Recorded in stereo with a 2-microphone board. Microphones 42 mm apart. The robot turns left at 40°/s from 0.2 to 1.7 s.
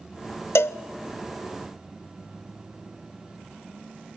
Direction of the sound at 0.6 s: 75° left (ahead or behind).